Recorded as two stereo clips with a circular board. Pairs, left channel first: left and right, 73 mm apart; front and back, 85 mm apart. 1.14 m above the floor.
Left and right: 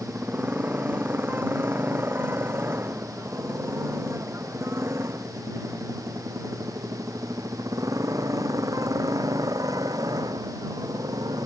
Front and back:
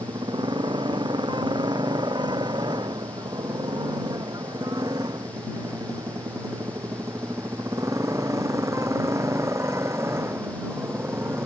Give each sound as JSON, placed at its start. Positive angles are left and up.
{"t": 0.0, "sound": "a motorcycle", "azimuth_deg": -155}